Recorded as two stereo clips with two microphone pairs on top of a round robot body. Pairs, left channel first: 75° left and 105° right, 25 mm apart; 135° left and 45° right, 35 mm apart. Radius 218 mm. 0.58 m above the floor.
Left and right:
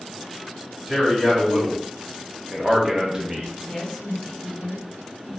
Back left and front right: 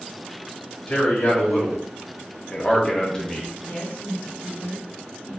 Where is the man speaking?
175° left, 2.5 m; by 3.5 s 150° right, 1.3 m.